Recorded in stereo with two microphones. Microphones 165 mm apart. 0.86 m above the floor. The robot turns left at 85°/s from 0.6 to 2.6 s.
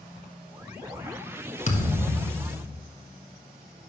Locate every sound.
1.7 s a thud: 115° left, 1.3 m; by 2.8 s 35° left, 1.3 m